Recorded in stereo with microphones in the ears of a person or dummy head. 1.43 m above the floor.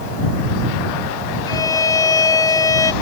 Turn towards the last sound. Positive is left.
turn(degrees=20)  # may be behind; listen again after turning